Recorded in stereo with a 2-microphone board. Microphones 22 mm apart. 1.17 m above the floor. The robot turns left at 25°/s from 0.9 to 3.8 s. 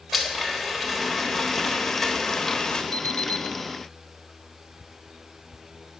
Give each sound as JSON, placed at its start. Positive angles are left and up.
{"t": 0.1, "sound": "a blender", "azimuth_deg": -170, "distance_m": 1.2}
{"t": 2.9, "sound": "an alarm clock", "side_deg": 60, "distance_m": 0.5}